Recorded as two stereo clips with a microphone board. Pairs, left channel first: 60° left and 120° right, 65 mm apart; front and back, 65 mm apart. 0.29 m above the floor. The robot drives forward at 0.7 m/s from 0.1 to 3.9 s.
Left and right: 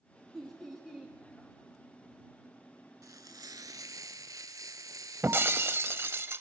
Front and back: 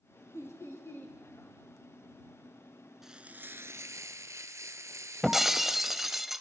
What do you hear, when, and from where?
0.3 s laughter: 30° right, 2 m; by 1.2 s 40° right, 1.9 m
3.0 s frying: 95° right, 0.5 m; by 6.2 s 140° right, 0.9 m
5.2 s breaking glass: 95° right, 0.6 m